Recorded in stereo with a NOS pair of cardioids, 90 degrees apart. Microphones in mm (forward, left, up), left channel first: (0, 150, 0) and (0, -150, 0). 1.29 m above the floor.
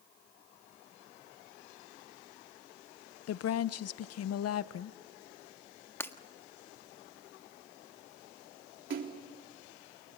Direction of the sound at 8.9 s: 40° right.